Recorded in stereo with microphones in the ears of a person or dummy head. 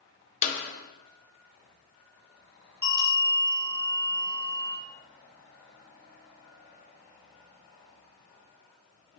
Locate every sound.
0.4 s a clap: 40° left (ahead or behind), 0.7 m
2.8 s a bell: 20° right (ahead or behind), 1.0 m